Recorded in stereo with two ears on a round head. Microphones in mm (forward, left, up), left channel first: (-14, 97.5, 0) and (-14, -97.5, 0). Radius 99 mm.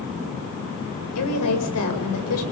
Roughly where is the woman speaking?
Left.